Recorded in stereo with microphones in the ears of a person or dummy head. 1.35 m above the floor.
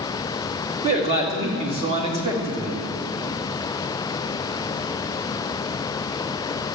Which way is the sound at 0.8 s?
30° right (ahead or behind).